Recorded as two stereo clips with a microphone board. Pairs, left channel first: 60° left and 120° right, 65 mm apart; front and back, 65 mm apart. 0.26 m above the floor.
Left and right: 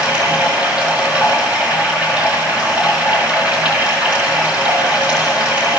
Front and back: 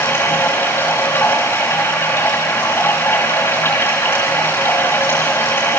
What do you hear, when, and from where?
0.0 s running water: 50° right, 4.5 m